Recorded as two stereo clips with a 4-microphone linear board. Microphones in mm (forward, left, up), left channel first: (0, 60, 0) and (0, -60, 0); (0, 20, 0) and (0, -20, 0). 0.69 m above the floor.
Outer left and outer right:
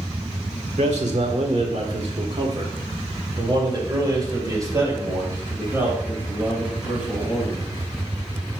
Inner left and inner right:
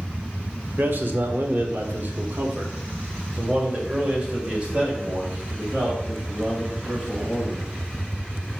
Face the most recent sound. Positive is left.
turn(degrees=-15)  # may be behind; listen again after turning